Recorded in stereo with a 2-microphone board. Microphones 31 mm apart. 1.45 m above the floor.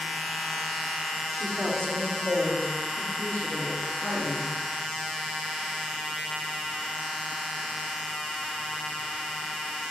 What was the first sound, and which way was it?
A woman speaking, 25° left (ahead or behind).